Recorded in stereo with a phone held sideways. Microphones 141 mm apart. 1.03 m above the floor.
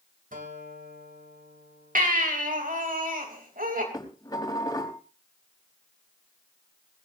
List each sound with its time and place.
0.3 s a guitar: 70° right (ahead or behind), 3 m
1.9 s a baby crying: 80° right, 3.5 m
3.9 s dishes clattering: 25° left (ahead or behind), 4 m